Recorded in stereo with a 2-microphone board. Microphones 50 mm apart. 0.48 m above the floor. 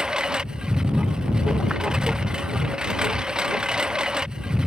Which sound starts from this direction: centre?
A lawn mower, at 0.0 s.